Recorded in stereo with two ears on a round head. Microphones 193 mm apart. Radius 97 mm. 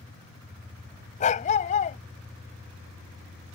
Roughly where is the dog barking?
Left.